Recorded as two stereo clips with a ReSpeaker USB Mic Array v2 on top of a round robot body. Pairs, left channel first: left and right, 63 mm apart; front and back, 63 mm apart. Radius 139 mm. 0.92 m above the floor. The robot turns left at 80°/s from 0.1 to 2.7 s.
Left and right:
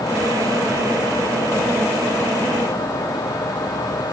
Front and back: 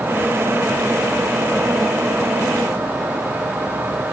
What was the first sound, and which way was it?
Only background noise.